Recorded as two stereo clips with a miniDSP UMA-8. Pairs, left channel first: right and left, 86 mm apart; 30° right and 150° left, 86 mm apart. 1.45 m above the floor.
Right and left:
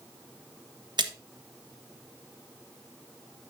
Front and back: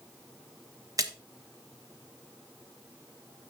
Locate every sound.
1.0 s a splash: 105° left, 1.0 m